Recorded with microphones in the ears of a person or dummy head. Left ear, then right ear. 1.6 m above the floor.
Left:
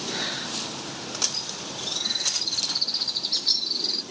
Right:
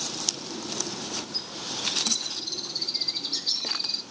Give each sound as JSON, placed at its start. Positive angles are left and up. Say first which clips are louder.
{"t": 1.3, "sound": "a bird", "louder": "even", "side_deg": 5, "distance_m": 2.0}